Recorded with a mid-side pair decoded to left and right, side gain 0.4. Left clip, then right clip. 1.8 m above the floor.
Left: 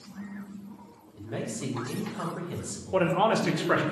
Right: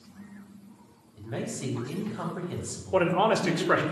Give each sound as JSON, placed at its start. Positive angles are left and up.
{"t": 1.2, "sound": "a man speaking", "azimuth_deg": -5, "distance_m": 1.6}
{"t": 2.9, "sound": "a man speaking", "azimuth_deg": -15, "distance_m": 0.8}